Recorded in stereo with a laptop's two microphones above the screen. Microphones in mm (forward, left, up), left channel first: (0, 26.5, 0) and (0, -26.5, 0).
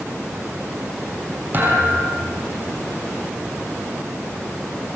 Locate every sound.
1.5 s a thud: 35° right (ahead or behind), 7.5 m